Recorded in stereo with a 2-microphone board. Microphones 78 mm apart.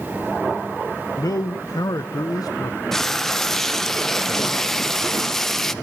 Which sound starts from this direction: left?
A man speaking, at 1.2 s.